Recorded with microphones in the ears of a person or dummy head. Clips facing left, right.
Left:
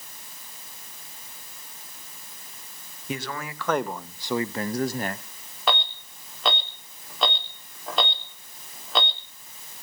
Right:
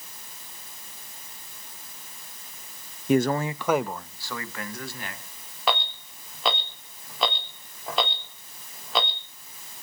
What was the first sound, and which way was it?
A man speaking, 40° right (ahead or behind).